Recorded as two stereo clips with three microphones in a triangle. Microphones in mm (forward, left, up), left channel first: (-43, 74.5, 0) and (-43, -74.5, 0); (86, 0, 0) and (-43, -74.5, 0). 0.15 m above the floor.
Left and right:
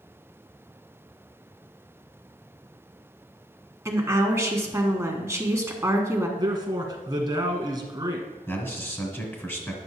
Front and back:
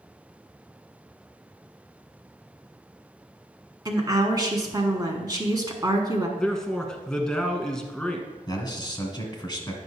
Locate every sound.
3.9 s a woman speaking: 135° right, 1.1 m
6.4 s a man speaking: 50° right, 1.2 m
8.5 s a man speaking: 35° left, 1.5 m